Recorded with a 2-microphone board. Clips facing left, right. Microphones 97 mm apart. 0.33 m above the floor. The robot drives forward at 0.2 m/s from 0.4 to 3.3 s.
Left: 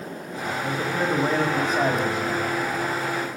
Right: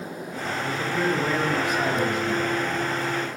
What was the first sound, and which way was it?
A man speaking, 35° left (ahead or behind).